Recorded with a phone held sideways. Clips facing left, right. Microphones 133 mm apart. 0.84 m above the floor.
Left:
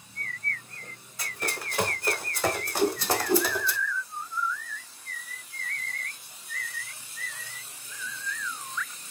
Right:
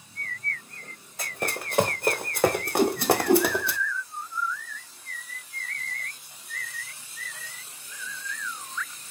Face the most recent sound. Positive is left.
turn(degrees=-60)  # may be behind; listen again after turning